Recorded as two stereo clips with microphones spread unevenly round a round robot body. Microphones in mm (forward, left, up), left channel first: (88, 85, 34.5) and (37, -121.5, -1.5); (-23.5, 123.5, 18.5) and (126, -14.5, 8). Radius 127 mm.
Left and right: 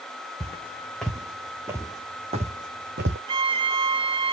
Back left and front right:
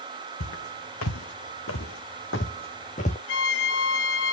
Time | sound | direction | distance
0.4 | footsteps | 155° left | 1.9 m
3.3 | a violin | 175° right | 0.5 m